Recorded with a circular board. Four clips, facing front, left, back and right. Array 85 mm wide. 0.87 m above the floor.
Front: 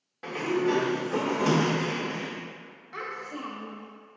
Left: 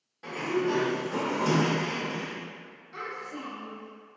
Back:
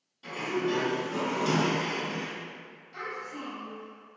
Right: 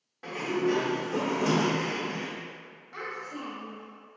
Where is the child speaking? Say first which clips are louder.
Even, front 2 dB; 15° right, 0.9 m.